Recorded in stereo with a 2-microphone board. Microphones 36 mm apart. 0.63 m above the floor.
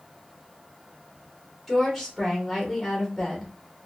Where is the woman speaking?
Centre (ahead or behind), 2 m.